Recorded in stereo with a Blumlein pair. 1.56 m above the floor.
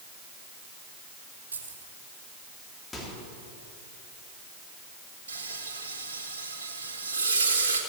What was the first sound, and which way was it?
Keys jangling, 70° right.